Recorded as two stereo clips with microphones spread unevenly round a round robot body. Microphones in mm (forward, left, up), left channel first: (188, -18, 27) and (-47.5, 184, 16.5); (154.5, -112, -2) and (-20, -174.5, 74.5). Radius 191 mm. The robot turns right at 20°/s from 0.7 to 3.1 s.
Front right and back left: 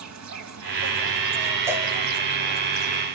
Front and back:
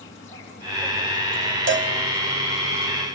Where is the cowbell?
140° right, 1.9 m; by 1.9 s 135° right, 1.9 m.